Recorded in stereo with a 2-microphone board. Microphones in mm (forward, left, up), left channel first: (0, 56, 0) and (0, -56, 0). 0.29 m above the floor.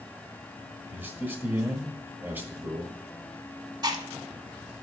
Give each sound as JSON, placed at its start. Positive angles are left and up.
{"t": 0.9, "sound": "a man speaking", "side_deg": -20, "distance_m": 1.3}
{"t": 3.8, "sound": "chewing", "side_deg": -40, "distance_m": 1.0}